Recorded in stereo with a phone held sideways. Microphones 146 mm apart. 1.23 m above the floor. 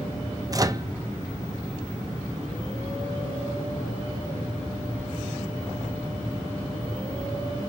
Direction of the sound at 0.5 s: 25° right (ahead or behind).